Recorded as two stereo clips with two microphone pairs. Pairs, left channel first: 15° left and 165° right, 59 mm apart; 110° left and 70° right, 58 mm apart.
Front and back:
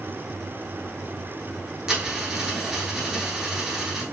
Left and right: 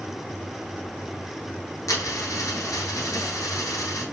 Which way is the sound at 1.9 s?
115° left.